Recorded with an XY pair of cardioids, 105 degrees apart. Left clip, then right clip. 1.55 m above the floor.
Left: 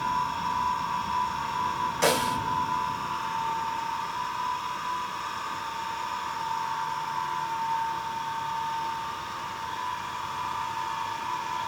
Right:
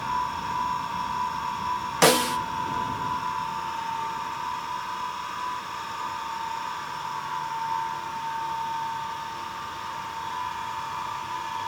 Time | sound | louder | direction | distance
2.0 | a snare drum | right 5 dB | 70° right | 1.3 m